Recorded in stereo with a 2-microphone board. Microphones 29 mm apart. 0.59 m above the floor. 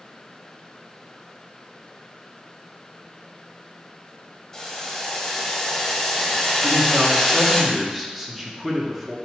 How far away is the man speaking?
About 0.7 m.